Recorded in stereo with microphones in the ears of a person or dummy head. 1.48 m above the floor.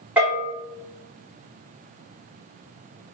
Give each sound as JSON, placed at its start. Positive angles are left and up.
{"t": 0.2, "sound": "a bell", "side_deg": -5, "distance_m": 1.9}